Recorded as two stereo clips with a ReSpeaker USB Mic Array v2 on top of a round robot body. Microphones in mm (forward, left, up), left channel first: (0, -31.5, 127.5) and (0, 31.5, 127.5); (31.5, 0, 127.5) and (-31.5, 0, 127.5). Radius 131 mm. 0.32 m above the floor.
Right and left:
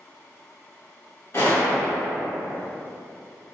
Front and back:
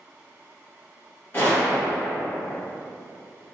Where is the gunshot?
55° right, 1.7 m.